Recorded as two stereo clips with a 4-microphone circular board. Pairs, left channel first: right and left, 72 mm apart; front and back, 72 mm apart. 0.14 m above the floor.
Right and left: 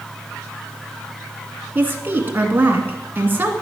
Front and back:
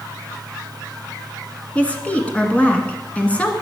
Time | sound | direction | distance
1.8 | a woman speaking | 55° left | 1.6 m